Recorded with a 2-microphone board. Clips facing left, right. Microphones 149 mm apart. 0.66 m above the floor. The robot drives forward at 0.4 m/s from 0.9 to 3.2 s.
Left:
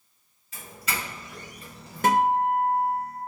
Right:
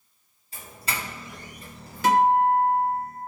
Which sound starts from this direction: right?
A doorbell, at 0.5 s.